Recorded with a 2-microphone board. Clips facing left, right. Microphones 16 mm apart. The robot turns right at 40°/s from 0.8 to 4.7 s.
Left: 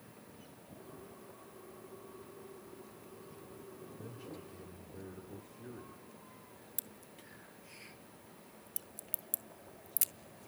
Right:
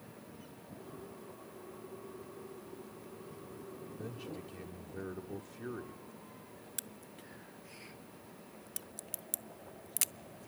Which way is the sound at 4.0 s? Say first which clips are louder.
Right 5 dB; 25° right (ahead or behind).